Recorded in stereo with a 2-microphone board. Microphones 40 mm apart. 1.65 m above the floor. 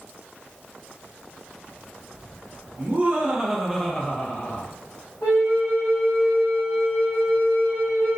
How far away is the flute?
About 1.1 m.